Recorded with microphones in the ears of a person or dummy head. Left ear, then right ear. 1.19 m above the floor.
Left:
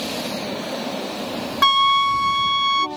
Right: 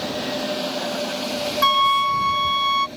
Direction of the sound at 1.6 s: Centre (ahead or behind).